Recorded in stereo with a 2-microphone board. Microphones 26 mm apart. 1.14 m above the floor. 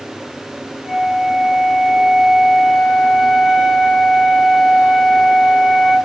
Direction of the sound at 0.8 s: 5° right (ahead or behind).